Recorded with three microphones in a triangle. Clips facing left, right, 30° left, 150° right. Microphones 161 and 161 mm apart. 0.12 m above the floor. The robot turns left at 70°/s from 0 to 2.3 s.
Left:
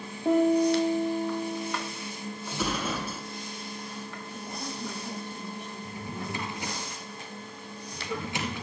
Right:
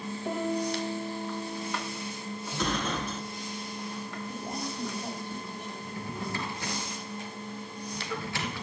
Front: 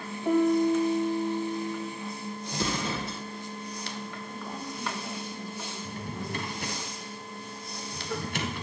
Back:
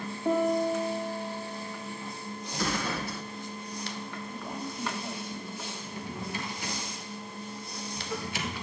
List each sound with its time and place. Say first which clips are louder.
0.2 s a piano: left 9 dB, front 3 dB; 145° left, 3 m; by 1.9 s 30° left, 3 m
2.5 s an explosion: even, even; 20° left, 1.0 m
4.3 s a woman speaking: right 3 dB, even; 65° right, 3 m
5.8 s a drawer: right 1 dB, front 1 dB; 25° left, 1.5 m